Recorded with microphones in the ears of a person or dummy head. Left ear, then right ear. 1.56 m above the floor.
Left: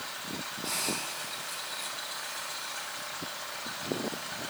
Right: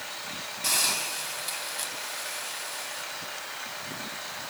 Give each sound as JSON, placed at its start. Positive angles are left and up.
{"t": 0.6, "sound": "a hiss", "side_deg": -50, "distance_m": 5.0}